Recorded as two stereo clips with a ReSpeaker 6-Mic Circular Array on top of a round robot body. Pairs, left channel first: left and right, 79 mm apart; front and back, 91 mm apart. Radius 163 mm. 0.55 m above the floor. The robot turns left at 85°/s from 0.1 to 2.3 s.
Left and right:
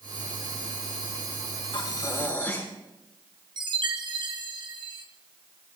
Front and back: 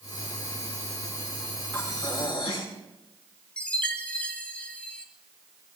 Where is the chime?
75° right, 1.6 m.